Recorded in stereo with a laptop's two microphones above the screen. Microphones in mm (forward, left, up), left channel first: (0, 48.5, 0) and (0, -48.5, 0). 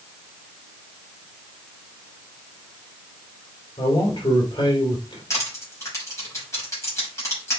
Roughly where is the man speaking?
Left.